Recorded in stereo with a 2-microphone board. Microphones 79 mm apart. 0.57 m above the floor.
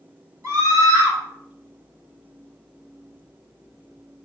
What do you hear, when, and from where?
0.4 s a scream: 45° right (ahead or behind), 1.8 m